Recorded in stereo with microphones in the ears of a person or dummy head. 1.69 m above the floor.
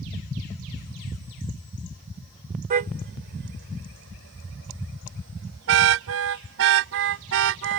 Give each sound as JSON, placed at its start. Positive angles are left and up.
{"t": 2.7, "sound": "a car horn", "side_deg": -40}